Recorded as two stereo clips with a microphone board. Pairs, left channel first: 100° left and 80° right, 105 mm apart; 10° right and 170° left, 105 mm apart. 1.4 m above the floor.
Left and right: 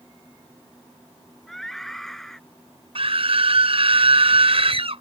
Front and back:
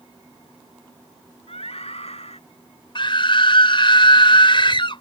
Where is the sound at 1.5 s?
15° left.